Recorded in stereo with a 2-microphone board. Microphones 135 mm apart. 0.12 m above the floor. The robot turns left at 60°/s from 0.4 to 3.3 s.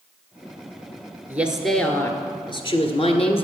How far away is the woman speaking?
About 1.6 m.